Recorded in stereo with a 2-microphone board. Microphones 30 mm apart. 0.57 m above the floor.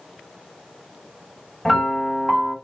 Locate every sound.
1.6 s a piano: centre (ahead or behind), 1.9 m